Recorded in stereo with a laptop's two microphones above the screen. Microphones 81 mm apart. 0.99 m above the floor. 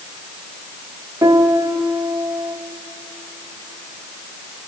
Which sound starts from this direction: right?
A piano, at 1.2 s.